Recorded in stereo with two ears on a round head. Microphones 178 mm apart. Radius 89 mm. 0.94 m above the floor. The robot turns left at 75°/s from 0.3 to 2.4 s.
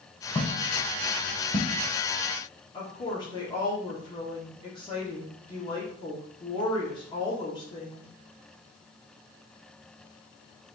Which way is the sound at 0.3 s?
15° left (ahead or behind).